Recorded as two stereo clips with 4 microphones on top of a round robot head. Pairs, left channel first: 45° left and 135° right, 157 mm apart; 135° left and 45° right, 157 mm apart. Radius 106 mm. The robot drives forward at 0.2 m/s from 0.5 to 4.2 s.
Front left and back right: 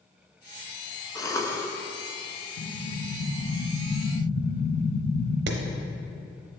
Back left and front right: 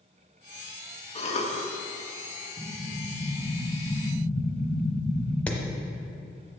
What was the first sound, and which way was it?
A cough, 105° left.